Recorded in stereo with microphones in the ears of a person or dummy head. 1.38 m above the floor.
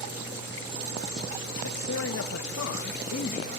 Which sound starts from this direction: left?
A man speaking, at 1.6 s.